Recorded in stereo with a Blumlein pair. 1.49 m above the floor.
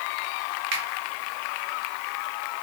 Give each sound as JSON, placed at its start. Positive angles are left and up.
{"t": 0.7, "sound": "a finger snap", "azimuth_deg": -45, "distance_m": 1.2}